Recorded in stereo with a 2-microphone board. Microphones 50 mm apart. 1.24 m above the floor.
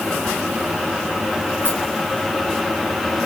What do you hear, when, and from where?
1.6 s a rattle: 35° left (ahead or behind), 9.5 m